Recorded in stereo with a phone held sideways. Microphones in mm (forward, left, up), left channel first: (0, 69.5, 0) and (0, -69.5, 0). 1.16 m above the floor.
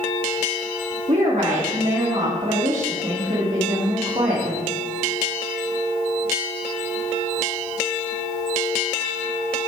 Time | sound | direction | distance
1.1 | a woman speaking | 60° right (ahead or behind) | 1.5 m